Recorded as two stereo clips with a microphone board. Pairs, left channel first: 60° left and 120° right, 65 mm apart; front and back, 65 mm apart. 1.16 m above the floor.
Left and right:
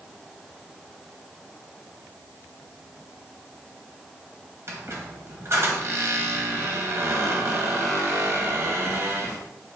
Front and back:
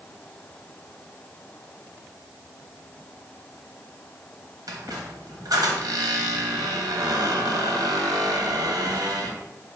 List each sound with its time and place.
4.7 s a squeak: 165° right, 0.9 m